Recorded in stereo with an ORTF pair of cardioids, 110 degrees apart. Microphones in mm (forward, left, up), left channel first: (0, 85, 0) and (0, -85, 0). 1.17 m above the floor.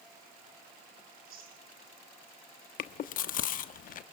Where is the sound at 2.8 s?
55° left, 1.2 m.